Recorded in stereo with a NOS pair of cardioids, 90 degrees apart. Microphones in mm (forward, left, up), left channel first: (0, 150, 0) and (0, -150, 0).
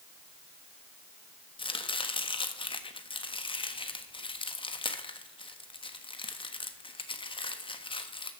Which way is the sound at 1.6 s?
15° left.